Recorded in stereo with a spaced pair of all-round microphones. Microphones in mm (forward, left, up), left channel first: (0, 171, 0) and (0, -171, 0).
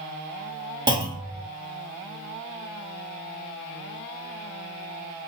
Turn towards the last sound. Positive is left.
turn(degrees=-10)  # may be behind; listen again after turning